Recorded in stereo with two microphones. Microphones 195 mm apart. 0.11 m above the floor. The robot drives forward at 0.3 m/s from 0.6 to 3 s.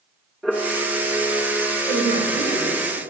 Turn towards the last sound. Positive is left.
turn(degrees=-65)  # may be behind; listen again after turning